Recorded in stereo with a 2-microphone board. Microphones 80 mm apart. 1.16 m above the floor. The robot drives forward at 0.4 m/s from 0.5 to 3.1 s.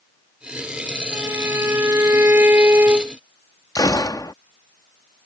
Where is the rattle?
I don't hear a rattle.